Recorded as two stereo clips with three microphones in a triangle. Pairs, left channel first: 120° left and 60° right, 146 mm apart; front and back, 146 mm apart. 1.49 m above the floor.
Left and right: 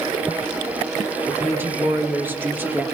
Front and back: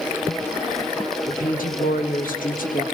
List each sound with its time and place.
1.3 s a woman speaking: 15° left, 3 m